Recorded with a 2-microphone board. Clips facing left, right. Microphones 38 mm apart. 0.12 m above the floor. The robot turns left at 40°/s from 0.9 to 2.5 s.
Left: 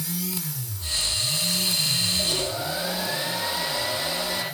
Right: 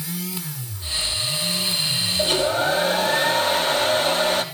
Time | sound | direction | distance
2.2 | a hair dryer | 45° right (ahead or behind) | 3.5 m